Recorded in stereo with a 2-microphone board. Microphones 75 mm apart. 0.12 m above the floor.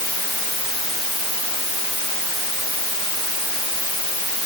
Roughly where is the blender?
I don't hear a blender.